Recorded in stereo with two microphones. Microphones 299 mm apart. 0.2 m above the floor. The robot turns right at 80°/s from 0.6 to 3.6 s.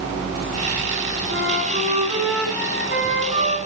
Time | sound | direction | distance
1.3 | a flute | 85° right | 1.6 m